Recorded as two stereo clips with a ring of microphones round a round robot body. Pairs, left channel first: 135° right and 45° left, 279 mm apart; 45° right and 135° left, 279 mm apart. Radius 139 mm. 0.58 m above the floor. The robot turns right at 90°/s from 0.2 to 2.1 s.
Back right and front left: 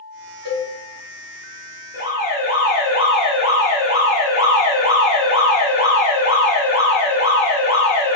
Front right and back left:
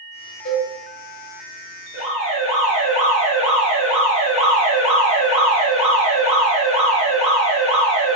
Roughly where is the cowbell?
Ahead.